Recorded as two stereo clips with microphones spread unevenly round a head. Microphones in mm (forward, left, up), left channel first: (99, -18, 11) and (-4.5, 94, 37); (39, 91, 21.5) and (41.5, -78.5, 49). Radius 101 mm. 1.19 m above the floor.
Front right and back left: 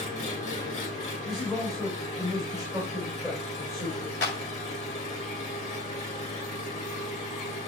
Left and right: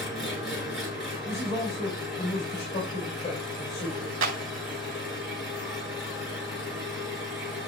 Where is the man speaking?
40° left, 4.5 m.